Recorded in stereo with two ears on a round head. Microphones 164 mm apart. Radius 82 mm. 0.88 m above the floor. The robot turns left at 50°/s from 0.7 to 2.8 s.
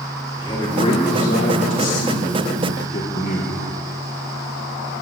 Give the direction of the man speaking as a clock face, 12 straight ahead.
7 o'clock.